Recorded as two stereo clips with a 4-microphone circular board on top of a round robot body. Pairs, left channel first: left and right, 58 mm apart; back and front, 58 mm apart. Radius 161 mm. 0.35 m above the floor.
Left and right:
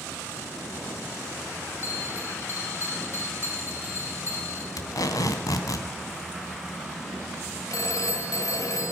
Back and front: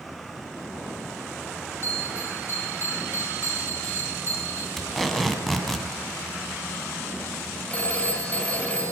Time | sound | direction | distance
1.8 | a bell | 135° left | 5.5 m
4.8 | tape being pulled | 95° left | 2.5 m
7.7 | a phone ringing | 115° left | 2.5 m